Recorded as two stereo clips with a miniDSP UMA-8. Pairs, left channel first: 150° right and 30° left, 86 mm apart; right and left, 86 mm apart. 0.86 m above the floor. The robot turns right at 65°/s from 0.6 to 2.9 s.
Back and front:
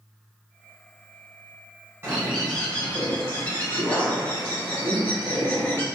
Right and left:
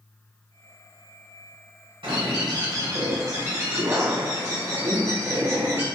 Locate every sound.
2.0 s a bird: 90° left, 1.8 m; by 5.9 s 145° left, 1.8 m